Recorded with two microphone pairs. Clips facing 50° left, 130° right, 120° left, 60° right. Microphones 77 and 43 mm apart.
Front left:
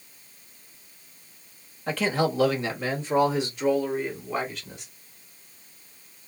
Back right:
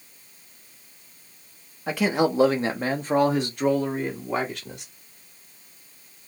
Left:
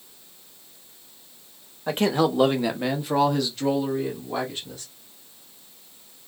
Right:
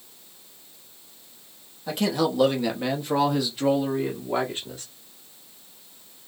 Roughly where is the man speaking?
Behind left.